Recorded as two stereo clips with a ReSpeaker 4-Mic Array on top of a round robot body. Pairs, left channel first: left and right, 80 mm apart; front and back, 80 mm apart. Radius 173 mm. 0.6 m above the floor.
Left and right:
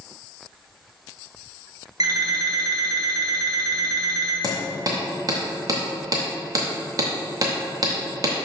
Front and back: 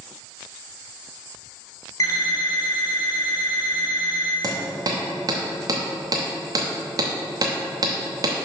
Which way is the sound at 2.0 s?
50° right.